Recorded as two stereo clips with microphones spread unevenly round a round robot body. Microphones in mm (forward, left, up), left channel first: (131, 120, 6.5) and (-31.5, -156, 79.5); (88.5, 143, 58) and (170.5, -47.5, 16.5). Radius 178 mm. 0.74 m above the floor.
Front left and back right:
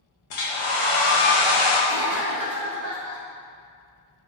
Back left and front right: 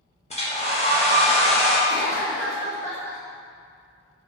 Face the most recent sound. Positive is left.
turn(degrees=-140)